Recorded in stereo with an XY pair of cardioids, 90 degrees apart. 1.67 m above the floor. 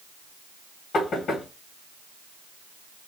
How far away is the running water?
No running water in this recording.